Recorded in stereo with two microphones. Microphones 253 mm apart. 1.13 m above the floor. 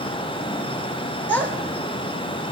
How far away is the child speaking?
About 2 m.